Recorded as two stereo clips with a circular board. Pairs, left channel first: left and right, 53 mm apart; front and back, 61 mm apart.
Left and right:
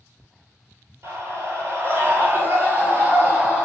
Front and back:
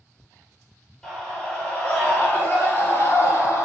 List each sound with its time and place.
1.0 s a scream: 75° right, 2.5 m; by 3.7 s 30° right, 2.5 m